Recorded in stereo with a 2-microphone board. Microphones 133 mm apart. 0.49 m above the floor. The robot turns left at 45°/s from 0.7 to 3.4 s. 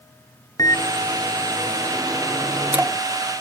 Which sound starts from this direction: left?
A microwave, at 0.6 s.